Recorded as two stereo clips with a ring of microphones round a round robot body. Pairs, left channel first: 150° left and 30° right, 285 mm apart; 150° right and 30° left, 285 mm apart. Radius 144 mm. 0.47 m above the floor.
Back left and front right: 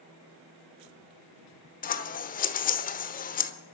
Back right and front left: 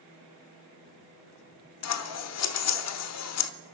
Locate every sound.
1.8 s scissors: 155° right, 1.1 m